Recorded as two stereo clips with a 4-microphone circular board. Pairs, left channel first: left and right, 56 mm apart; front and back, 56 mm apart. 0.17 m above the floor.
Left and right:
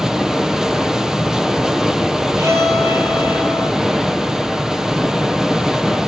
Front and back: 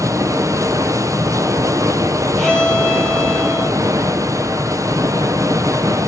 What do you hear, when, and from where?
0.0 s running water: 170° right, 0.8 m
2.4 s a violin: 85° right, 5 m